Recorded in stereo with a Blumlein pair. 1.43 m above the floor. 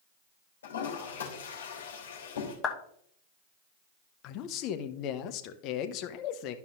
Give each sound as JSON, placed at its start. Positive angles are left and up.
{"t": 0.6, "sound": "a toilet flushing", "azimuth_deg": 65, "distance_m": 3.0}
{"t": 2.6, "sound": "a clap", "azimuth_deg": 20, "distance_m": 1.2}
{"t": 4.2, "sound": "a man speaking", "azimuth_deg": 40, "distance_m": 0.8}